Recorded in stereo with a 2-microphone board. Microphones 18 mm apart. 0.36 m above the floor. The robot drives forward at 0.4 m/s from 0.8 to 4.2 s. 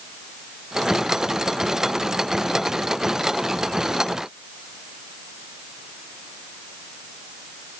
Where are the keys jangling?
I don't hear keys jangling.